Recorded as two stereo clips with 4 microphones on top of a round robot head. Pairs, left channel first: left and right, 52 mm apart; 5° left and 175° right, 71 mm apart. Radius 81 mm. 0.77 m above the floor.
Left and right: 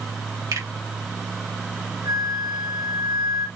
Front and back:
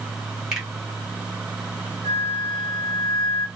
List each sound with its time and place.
0.5 s a finger snap: 95° right, 2.5 m
2.0 s a flute: 110° right, 3 m